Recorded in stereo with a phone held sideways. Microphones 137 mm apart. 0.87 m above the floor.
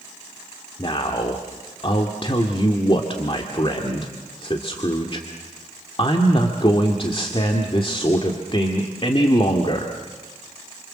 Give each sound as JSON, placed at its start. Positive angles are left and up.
{"t": 0.8, "sound": "a man speaking", "side_deg": 40, "distance_m": 1.9}